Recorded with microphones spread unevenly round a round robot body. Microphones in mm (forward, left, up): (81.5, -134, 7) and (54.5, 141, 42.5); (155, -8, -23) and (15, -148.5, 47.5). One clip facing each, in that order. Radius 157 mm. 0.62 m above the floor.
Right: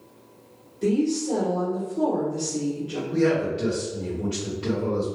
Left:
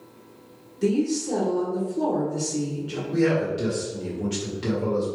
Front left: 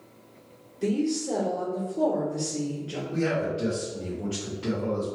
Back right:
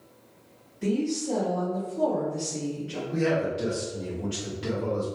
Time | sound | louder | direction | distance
0.8 | a woman speaking | even, front left 1 dB | 40° left | 2.0 m
3.1 | a man speaking | even, back right 1 dB | 125° left | 1.2 m